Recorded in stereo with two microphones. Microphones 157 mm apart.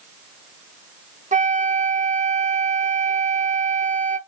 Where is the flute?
55° right (ahead or behind), 0.6 m.